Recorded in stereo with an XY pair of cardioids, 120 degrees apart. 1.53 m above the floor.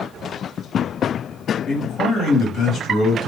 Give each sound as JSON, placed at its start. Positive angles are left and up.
{"t": 1.7, "sound": "a man speaking", "azimuth_deg": 60, "distance_m": 1.9}